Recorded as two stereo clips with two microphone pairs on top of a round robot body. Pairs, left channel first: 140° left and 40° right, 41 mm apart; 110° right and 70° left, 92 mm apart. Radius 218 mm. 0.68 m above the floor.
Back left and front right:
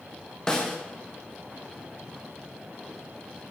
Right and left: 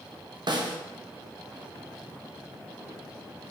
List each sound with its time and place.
0.5 s a snare drum: 75° left, 1.5 m